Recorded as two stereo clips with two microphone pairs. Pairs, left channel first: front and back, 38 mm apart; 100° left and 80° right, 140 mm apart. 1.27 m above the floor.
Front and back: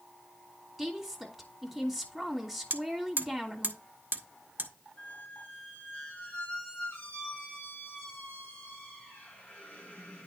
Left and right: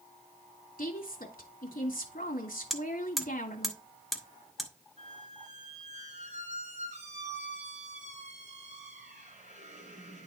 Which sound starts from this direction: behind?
Hammering, at 2.7 s.